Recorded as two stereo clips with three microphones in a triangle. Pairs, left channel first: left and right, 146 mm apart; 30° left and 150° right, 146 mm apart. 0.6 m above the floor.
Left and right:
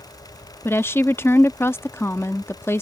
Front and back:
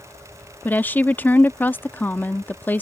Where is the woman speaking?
70° left.